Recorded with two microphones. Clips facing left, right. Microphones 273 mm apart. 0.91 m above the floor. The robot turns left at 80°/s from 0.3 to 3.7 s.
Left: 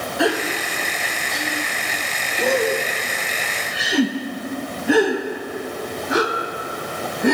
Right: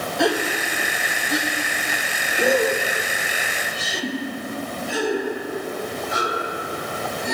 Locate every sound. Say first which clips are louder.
0.2 s a gasp: left 1 dB; centre (ahead or behind), 0.6 m; by 7.3 s 70° left (ahead or behind), 0.6 m